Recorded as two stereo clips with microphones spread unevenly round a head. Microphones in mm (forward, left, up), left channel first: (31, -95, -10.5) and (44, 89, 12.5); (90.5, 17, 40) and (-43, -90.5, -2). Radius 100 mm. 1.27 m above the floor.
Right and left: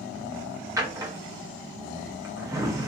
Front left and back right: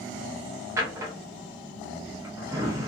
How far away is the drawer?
About 0.6 m.